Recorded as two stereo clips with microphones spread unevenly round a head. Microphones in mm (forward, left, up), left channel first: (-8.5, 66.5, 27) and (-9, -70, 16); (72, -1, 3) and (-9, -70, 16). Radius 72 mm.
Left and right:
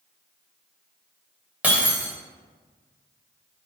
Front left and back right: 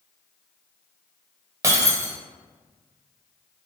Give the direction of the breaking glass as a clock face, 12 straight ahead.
6 o'clock.